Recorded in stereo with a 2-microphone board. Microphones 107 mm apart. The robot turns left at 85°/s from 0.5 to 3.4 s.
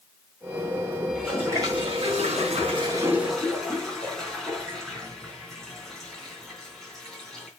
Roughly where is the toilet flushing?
Ahead.